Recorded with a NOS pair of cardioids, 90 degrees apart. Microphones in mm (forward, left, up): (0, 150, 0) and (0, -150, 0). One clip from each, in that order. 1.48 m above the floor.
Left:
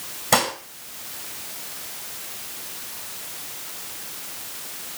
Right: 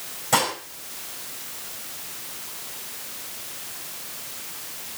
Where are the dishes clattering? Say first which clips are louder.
Left 1 dB; 60° left, 4.5 m.